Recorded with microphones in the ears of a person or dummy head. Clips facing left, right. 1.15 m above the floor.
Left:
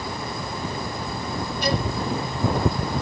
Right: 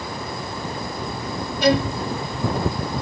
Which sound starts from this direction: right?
A violin, at 1.6 s.